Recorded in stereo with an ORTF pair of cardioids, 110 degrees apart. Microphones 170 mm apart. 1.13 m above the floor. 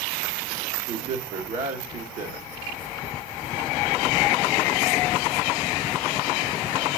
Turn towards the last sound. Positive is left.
turn(degrees=-60)